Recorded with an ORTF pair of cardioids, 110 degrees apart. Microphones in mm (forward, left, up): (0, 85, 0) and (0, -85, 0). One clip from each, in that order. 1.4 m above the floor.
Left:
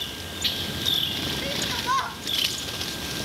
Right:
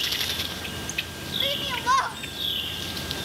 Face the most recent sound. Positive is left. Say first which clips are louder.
# right 6 dB
turn(degrees=-20)